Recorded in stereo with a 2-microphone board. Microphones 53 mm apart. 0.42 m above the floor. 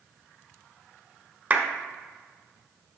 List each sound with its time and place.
1.5 s a clap: 35° right (ahead or behind), 1.1 m